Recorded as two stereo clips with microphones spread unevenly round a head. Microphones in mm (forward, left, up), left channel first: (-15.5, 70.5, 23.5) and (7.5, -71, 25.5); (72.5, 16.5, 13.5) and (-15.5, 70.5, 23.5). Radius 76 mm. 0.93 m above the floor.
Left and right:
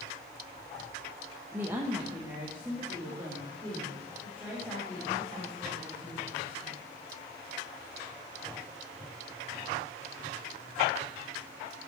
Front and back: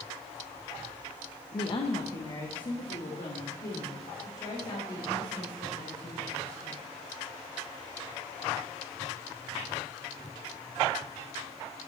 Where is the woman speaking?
5° right, 0.5 m.